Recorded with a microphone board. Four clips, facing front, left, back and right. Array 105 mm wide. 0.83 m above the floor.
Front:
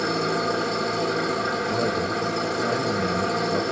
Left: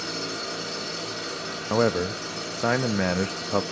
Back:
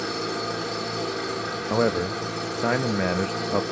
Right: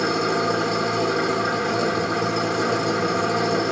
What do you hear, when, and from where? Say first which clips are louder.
0.0 s an engine running: right 12 dB, front 5 dB; 70° right, 1.2 m
1.7 s a man speaking: right 1 dB, back 1 dB; 130° left, 0.5 m